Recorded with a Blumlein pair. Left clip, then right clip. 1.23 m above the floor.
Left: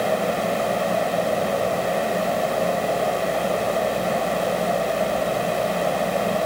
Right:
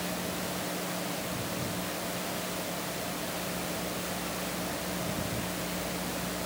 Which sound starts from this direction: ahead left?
A fan, at 0.0 s.